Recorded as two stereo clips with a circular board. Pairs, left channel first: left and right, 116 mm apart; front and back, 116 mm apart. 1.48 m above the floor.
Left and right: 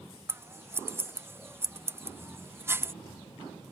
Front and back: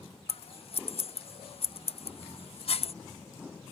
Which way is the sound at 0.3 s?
25° right.